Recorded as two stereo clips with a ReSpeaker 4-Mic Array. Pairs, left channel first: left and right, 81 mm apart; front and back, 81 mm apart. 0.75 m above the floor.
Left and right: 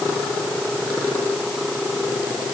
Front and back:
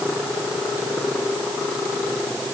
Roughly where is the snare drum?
I don't hear a snare drum.